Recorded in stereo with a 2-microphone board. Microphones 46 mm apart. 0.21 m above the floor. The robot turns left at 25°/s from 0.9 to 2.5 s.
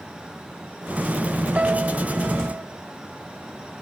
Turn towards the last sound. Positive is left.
turn(degrees=-40)  # may be behind; listen again after turning